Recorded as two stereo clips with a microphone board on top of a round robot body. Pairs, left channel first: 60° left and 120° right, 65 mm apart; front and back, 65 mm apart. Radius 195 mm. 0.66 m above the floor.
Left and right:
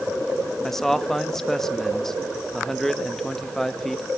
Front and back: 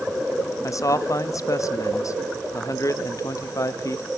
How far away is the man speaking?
About 1.2 m.